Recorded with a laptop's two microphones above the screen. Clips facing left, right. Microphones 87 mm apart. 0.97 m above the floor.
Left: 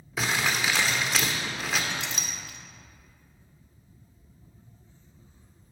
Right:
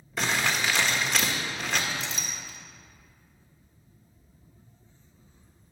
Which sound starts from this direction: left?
A clink, at 1.9 s.